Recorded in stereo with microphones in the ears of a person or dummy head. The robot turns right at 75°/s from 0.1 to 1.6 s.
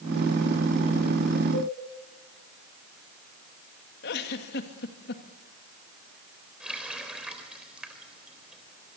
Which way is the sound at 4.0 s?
60° left (ahead or behind).